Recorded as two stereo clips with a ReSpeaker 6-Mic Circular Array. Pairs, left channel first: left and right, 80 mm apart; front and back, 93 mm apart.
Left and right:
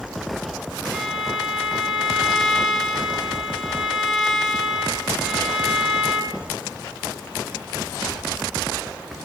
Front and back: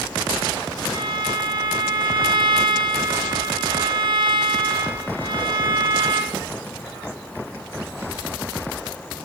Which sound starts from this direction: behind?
A violin, at 0.9 s.